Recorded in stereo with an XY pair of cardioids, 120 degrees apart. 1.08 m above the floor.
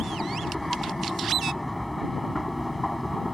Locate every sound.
0.0 s a machine running: 10° left